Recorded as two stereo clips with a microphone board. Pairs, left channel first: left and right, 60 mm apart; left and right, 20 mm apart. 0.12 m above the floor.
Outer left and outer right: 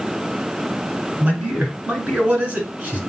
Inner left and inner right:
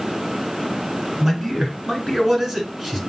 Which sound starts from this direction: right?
A man speaking, at 1.2 s.